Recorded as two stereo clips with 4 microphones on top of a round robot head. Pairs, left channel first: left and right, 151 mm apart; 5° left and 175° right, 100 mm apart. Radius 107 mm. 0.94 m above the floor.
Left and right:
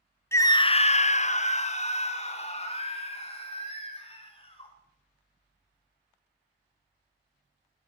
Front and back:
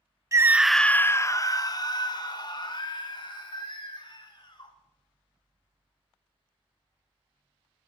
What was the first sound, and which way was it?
A scream, 150° left.